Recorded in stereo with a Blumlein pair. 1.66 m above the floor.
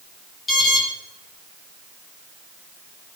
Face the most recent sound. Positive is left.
turn(degrees=15)